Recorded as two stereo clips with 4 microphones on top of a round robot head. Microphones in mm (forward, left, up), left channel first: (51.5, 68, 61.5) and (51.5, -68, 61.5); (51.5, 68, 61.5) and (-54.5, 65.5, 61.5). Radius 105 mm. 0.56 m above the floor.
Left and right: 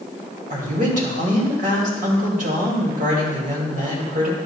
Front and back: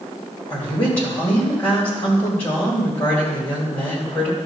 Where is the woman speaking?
70° right, 2.5 m.